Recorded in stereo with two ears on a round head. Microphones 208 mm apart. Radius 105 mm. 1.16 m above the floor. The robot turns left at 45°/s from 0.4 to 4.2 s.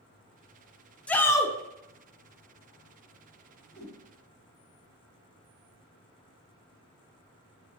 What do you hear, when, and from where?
1.1 s a shout: 5° left (ahead or behind), 0.5 m; by 1.6 s 20° left (ahead or behind), 0.5 m
3.7 s a whoosh: 25° left (ahead or behind), 1.8 m; by 4.0 s 35° left (ahead or behind), 1.8 m